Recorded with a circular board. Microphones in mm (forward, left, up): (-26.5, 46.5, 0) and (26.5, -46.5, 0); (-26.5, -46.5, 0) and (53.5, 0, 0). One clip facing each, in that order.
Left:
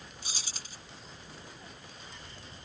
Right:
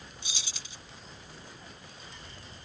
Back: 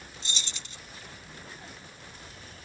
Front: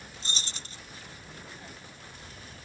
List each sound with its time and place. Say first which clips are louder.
0.2 s keys jangling: even, front 1 dB; 75° left